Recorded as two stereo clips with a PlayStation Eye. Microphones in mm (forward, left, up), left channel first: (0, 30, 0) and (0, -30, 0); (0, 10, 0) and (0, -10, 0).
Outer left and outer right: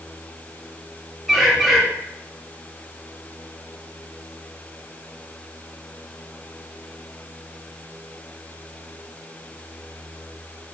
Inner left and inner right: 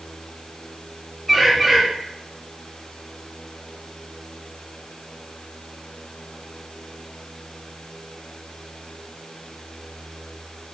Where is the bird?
Centre (ahead or behind), 4.5 m.